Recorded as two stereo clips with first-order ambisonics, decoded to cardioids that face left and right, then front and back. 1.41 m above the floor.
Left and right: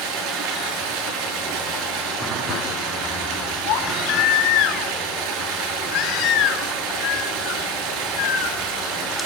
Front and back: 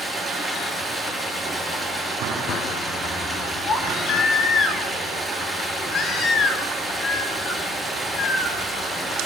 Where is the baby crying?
60° left, 3 m.